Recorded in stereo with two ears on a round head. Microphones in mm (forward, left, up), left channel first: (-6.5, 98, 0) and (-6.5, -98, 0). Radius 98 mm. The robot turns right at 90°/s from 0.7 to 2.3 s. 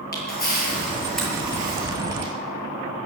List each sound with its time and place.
0.1 s a camera shutter: 45° left (ahead or behind), 7 m; by 2.3 s 80° right, 7 m